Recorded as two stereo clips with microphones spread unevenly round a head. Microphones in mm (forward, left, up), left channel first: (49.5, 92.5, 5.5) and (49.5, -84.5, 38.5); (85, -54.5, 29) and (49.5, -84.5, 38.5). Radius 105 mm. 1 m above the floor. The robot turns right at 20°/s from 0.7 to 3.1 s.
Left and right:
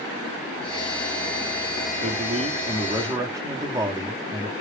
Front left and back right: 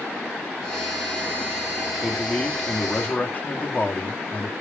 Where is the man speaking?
40° right, 1.7 m; by 4.5 s 15° right, 1.7 m.